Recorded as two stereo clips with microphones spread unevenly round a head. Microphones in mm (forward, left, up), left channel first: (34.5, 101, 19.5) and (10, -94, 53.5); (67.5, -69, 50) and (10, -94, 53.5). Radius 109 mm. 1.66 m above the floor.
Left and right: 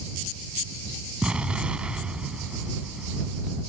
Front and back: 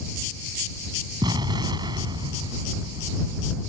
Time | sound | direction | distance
1.2 | an explosion | straight behind | ?